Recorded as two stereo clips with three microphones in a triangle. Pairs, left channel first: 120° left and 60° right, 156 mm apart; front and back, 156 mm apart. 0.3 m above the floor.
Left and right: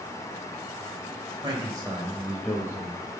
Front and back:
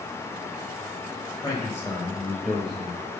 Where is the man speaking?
50° right, 1.2 m; by 3.0 s 100° left, 1.3 m.